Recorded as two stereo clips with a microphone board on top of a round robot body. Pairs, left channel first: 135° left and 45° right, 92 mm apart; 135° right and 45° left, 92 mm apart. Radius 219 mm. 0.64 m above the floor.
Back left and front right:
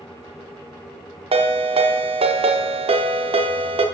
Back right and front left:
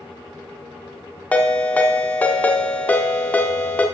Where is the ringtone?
60° right, 0.6 m.